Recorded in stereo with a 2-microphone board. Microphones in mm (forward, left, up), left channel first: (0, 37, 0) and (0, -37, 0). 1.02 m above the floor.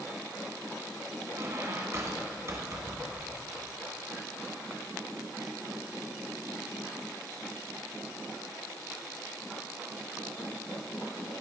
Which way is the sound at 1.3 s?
40° right (ahead or behind).